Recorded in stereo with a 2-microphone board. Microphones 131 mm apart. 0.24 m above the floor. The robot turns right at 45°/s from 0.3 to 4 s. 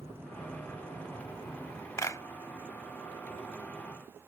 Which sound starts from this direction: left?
A clap, at 2.0 s.